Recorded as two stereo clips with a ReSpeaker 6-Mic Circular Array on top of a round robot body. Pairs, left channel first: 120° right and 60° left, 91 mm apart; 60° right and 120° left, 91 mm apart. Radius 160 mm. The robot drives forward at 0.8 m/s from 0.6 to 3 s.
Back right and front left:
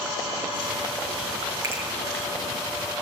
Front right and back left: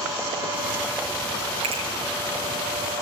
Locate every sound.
1.6 s a finger snap: 125° left, 6.5 m